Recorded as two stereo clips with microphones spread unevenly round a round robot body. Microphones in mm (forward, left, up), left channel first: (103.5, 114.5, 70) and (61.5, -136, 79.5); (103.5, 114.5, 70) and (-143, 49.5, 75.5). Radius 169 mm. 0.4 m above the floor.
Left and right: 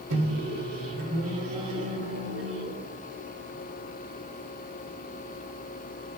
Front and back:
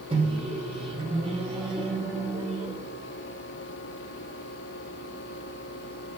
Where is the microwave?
95° right, 1.4 m.